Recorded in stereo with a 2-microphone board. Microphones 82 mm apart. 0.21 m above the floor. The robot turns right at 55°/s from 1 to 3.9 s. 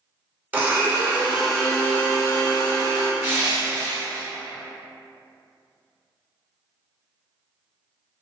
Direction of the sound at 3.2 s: 25° right.